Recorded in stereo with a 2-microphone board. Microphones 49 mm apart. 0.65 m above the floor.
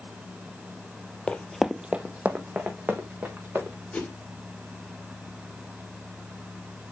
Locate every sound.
1.3 s running footsteps: 20° left (ahead or behind), 0.7 m; by 3.8 s 35° right (ahead or behind), 3.5 m
3.9 s a whoosh: 30° left (ahead or behind), 4.5 m